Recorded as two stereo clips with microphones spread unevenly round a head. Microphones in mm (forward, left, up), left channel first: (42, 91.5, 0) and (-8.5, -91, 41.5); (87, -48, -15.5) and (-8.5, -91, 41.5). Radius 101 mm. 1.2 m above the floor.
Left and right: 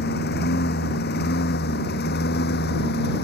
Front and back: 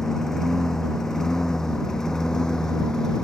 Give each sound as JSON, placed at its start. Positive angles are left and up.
{"t": 0.0, "sound": "a lawn mower", "azimuth_deg": 115}